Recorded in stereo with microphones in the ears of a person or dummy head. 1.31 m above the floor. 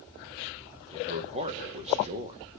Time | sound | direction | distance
0.9 | a man speaking | 30° right (ahead or behind) | 1.6 m